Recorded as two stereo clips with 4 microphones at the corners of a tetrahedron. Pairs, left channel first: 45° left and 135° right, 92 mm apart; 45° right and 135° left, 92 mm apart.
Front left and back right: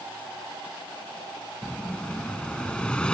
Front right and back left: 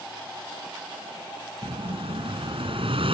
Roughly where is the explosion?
Behind left.